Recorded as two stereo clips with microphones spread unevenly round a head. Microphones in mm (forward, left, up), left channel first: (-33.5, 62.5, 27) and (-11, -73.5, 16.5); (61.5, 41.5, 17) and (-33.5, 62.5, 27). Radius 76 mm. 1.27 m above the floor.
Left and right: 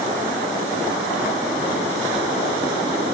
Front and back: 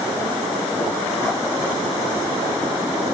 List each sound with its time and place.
Only background noise.